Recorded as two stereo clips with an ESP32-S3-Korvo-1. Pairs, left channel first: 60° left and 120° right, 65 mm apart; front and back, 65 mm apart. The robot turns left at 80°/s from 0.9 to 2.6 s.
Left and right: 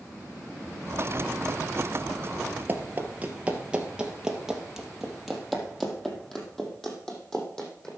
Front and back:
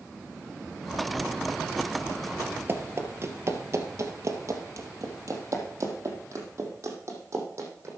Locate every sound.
2.7 s running footsteps: 160° right, 2 m; by 7.9 s 140° left, 5 m